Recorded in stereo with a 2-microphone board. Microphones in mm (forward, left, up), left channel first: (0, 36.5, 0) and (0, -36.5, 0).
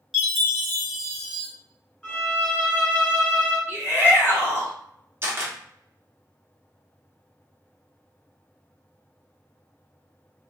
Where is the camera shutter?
35° right (ahead or behind), 0.8 m.